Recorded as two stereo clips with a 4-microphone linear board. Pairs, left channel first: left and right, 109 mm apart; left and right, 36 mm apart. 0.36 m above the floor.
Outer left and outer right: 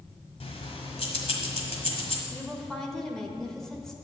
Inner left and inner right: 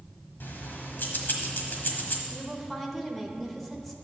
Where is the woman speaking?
5° left (ahead or behind), 1.1 m.